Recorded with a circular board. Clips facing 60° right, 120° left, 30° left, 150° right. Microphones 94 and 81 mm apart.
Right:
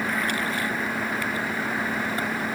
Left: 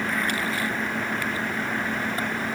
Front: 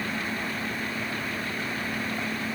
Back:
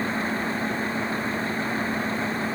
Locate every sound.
Only background noise.